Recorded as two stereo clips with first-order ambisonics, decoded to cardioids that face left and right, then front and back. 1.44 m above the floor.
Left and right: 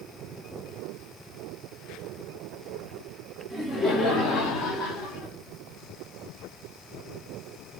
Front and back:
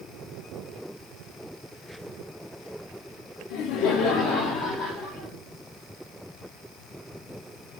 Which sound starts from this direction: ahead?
Laughter, at 3.5 s.